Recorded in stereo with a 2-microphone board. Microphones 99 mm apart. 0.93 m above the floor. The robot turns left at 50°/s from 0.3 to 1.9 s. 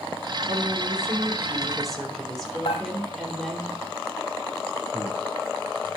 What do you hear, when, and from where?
0.5 s a woman speaking: 110° right, 4 m; by 3.6 s 175° left, 4 m
2.6 s dishes clattering: 75° left (ahead or behind), 2.5 m
4.9 s breathing: 10° left (ahead or behind), 9.5 m